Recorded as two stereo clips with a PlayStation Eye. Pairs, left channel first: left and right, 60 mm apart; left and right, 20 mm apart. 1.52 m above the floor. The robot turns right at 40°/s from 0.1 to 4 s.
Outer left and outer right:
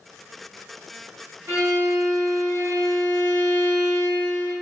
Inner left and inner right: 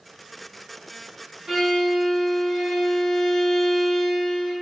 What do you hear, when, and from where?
1.5 s a violin: 100° right, 1.8 m; by 4.5 s straight ahead, 1.8 m